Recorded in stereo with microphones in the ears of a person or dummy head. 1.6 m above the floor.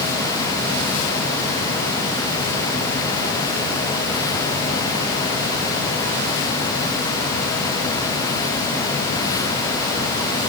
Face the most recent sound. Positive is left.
No sound to turn to.